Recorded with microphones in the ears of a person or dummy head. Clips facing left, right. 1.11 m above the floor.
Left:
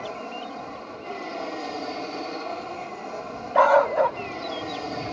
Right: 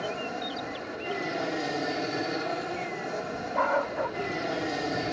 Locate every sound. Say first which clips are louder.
0.0 s an aircraft: right 1 dB; 15° right (ahead or behind)
3.5 s a dog barking: left 10 dB; 65° left (ahead or behind)